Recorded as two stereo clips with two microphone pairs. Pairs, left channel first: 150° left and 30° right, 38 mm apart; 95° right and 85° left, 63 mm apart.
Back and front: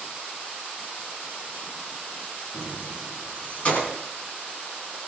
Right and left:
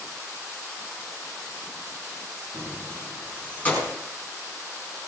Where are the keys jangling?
150° right, 4.5 m; by 4.0 s 165° right, 5.5 m.